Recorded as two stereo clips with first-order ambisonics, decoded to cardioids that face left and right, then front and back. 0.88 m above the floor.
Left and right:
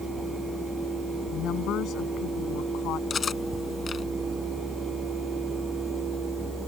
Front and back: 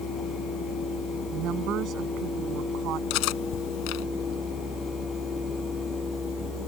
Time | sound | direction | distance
1.3 | a woman speaking | 135° left | ?
3.1 | cutlery clinking | 20° left | ?